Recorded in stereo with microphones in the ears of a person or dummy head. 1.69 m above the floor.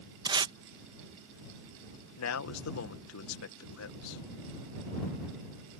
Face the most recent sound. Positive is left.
turn(degrees=80)